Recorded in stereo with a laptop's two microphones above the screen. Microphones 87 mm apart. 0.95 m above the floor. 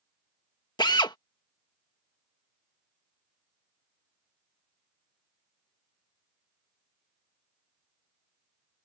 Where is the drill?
55° left (ahead or behind).